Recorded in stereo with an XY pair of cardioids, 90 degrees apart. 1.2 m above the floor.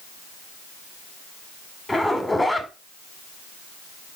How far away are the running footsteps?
I don't hear running footsteps.